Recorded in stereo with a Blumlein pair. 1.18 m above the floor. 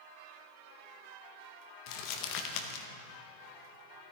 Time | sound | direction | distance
1.9 | crumpling | 40° left | 1.0 m